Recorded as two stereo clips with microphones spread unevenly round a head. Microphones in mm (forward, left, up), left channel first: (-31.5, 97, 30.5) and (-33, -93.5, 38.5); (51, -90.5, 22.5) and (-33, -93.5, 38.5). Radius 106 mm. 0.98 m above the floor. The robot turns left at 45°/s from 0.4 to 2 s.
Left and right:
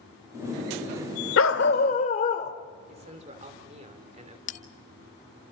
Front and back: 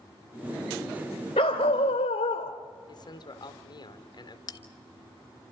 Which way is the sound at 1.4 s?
60° left.